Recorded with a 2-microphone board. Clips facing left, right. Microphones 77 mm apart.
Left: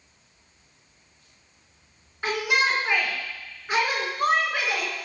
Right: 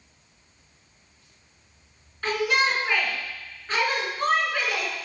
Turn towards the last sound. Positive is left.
turn(degrees=20)  # may be behind; listen again after turning